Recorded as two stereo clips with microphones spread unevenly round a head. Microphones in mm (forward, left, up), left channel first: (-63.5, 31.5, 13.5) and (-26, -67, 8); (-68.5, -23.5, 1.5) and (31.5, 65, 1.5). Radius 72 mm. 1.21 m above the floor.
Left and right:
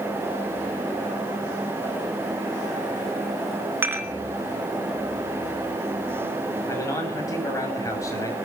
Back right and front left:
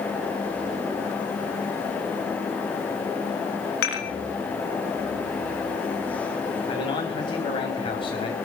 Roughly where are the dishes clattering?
Behind right.